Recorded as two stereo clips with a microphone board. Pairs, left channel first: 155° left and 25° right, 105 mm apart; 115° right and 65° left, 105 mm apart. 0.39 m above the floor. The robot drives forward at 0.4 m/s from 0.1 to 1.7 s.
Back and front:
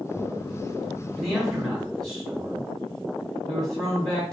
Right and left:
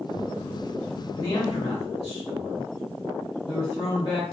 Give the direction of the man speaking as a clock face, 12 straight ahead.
4 o'clock.